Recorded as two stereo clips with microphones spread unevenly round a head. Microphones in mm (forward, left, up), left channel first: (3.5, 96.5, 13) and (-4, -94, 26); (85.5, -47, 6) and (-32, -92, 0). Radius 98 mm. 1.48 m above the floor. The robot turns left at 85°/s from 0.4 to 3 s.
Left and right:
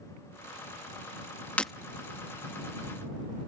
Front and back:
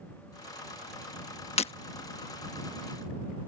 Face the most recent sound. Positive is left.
turn(degrees=-120)